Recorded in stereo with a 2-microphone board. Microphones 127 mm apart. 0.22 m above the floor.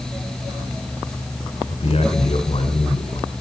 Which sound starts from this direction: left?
A man speaking, at 1.7 s.